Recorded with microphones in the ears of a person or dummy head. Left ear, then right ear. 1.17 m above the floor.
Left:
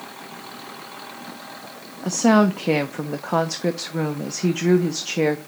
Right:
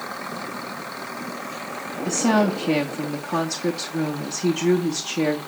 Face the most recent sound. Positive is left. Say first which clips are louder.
# left 3 dB
turn(degrees=30)  # may be behind; listen again after turning